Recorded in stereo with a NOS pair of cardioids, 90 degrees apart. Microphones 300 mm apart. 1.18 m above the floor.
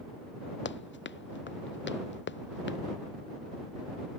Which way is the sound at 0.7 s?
40° left.